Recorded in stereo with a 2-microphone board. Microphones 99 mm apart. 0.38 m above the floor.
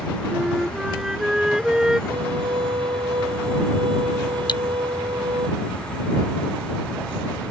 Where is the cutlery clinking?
50° left (ahead or behind).